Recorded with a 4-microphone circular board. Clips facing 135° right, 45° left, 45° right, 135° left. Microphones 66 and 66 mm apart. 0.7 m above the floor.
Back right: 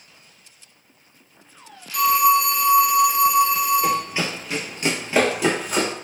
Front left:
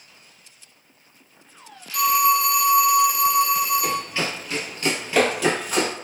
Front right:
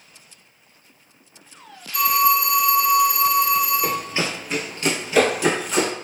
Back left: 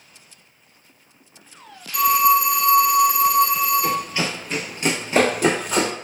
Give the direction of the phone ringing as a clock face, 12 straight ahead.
7 o'clock.